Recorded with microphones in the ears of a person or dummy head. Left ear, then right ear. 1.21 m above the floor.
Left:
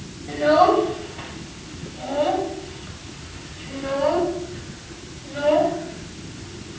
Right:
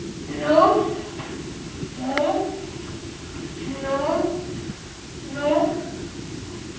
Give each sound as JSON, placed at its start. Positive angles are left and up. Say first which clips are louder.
{"t": 0.3, "sound": "a child speaking", "louder": "even", "side_deg": 40, "distance_m": 5.5}